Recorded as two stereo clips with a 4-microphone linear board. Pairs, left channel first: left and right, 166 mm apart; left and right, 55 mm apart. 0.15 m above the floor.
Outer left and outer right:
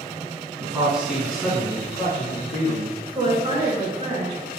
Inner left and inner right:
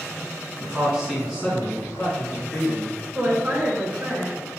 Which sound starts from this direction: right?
A woman speaking, at 3.1 s.